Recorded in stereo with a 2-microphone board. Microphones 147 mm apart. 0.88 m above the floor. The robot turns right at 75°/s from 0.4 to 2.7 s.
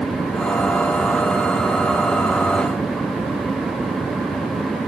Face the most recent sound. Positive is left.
No sound to turn to.